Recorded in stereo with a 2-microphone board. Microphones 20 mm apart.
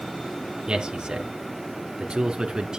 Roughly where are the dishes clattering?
No dishes clattering in this recording.